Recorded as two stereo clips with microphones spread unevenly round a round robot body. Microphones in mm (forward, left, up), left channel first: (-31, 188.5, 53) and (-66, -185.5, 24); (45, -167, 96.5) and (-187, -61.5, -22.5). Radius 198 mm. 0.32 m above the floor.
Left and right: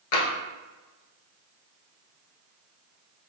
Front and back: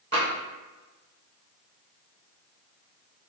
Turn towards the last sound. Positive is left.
turn(degrees=95)